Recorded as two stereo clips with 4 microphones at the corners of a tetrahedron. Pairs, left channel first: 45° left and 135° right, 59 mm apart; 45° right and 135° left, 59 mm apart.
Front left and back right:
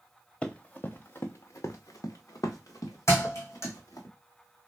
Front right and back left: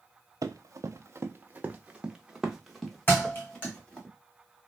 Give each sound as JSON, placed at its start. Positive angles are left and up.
{"t": 0.4, "sound": "running footsteps", "azimuth_deg": 120, "distance_m": 0.8}
{"t": 3.1, "sound": "a thud", "azimuth_deg": 10, "distance_m": 1.9}